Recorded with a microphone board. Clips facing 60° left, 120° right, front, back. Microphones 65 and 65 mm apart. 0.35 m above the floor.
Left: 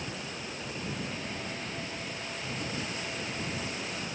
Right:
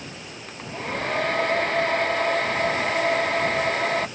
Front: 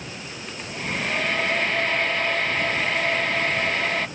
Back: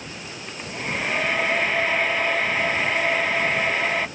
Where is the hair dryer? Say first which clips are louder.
Right 11 dB, back 1 dB; 100° right.